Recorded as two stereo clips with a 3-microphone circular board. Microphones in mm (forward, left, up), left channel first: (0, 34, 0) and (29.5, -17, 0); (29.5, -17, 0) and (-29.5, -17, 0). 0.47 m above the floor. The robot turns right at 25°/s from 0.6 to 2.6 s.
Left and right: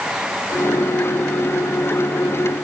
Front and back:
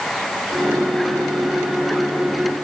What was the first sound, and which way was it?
Only background noise.